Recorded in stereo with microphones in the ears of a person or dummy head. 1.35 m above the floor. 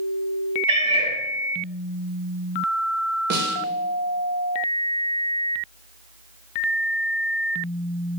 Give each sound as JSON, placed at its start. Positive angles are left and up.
{"t": 0.7, "sound": "a cat meowing", "side_deg": -30, "distance_m": 1.4}
{"t": 3.3, "sound": "a snare drum", "side_deg": -55, "distance_m": 1.6}